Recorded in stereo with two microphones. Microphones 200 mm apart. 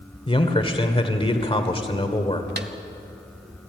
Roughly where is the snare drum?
Right.